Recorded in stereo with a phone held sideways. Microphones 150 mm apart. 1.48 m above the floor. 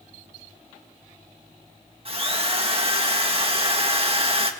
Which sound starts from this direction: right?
A drill, at 2.0 s.